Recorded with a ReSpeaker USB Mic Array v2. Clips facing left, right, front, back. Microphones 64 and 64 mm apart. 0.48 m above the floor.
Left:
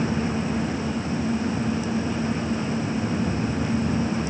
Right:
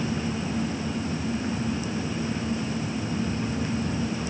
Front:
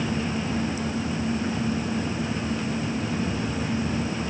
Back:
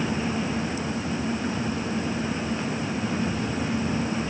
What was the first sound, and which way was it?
Only background noise.